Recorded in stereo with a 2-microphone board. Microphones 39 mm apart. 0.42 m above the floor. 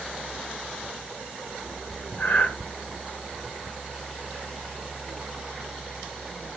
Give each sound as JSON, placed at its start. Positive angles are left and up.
{"t": 2.2, "sound": "breathing", "side_deg": 50, "distance_m": 1.4}